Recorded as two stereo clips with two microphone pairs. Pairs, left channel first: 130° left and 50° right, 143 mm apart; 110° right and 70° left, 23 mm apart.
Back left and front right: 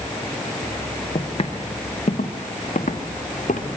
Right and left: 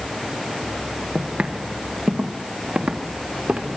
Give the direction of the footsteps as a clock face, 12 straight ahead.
9 o'clock.